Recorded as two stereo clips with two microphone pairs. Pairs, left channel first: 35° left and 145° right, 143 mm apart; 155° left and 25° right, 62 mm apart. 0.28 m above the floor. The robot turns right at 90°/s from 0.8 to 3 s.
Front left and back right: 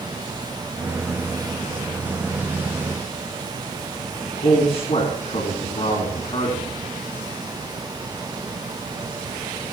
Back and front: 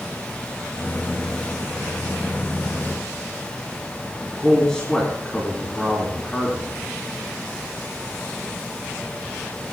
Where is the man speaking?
75° left, 3.5 m.